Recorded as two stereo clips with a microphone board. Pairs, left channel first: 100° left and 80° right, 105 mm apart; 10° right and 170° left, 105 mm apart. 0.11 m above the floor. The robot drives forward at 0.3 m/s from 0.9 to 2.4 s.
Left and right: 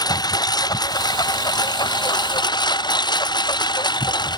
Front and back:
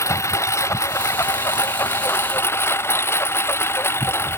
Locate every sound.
0.0 s a lawn mower: 50° left; by 4.4 s 55° left